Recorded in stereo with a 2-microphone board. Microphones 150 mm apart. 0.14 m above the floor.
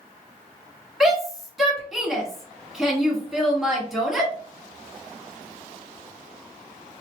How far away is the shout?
About 1.3 m.